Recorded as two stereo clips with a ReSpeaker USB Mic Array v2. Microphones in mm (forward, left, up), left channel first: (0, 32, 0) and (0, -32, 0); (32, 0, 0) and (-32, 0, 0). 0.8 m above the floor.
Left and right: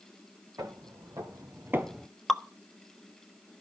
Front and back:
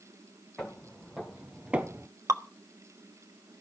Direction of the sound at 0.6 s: 85° right.